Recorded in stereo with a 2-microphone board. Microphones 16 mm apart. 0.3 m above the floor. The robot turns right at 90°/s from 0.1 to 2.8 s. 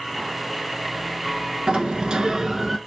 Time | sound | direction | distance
1.7 | a sliding door | 115° right | 0.7 m